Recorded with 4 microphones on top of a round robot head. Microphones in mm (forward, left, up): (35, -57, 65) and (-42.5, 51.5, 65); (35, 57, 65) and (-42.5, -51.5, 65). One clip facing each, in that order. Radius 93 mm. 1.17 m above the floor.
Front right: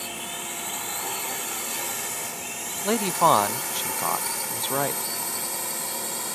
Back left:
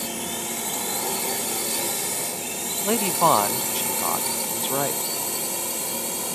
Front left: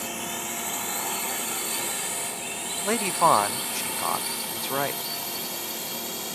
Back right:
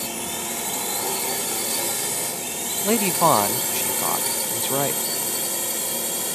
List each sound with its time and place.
0.0 s a drone: 175° left; by 6.4 s 160° right
2.8 s a man speaking: 155° right